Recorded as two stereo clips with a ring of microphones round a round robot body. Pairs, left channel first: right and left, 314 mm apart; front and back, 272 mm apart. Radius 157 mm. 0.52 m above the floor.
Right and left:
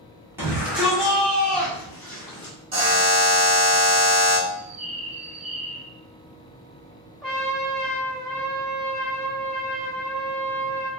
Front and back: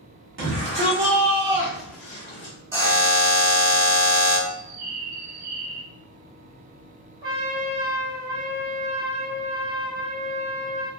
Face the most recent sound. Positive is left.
turn(degrees=175)